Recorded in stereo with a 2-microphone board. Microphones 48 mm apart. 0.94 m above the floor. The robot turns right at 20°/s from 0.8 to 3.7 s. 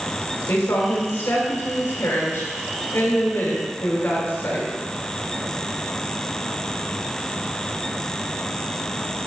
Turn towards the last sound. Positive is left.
turn(degrees=135)